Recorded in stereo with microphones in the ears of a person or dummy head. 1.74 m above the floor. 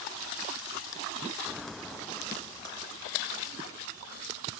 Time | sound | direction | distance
1.4 | footsteps | 5° right (ahead or behind) | ?